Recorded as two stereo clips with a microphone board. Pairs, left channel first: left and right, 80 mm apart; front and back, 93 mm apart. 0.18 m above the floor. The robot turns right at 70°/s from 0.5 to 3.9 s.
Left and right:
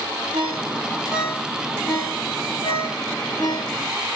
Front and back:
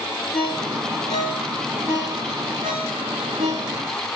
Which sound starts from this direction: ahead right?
A ringtone, at 0.3 s.